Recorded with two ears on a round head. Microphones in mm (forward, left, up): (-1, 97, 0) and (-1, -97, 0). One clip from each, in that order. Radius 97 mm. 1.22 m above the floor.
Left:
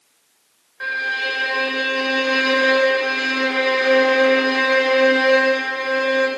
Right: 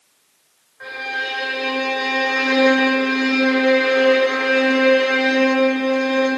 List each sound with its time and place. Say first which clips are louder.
0.8 s a violin: left 3 dB; 75° left (ahead or behind), 6.5 m